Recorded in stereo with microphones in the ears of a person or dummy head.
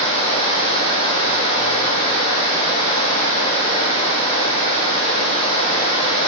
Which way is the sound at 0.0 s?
35° left (ahead or behind).